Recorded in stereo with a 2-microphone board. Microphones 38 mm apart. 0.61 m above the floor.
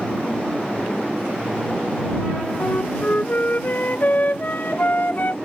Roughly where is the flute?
Left.